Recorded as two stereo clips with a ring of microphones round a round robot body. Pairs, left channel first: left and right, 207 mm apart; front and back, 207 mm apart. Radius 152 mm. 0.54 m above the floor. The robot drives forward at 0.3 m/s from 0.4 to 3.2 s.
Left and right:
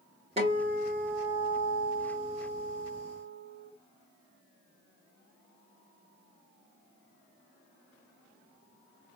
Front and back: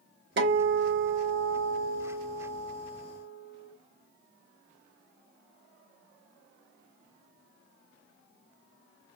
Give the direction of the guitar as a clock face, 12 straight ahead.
5 o'clock.